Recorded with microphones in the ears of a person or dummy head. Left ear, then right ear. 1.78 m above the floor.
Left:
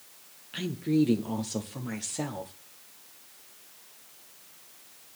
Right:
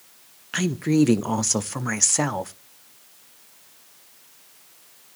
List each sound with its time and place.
0.5 s a woman speaking: 50° right (ahead or behind), 0.5 m